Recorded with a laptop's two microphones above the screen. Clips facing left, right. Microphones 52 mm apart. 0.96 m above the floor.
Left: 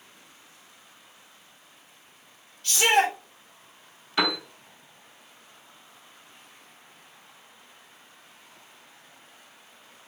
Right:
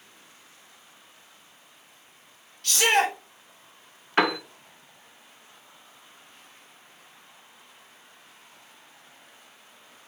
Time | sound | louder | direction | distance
2.6 | a shout | left 1 dB | 65° right (ahead or behind) | 1.6 m
4.2 | a piano | right 3 dB | 45° right (ahead or behind) | 0.9 m